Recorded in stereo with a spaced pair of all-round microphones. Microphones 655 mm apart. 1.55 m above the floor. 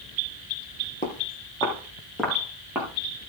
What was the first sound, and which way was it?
Footsteps, 10° left (ahead or behind).